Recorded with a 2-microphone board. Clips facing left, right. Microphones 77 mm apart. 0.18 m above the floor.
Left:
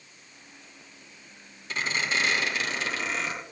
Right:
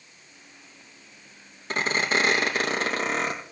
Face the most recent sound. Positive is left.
turn(degrees=-40)  # may be behind; listen again after turning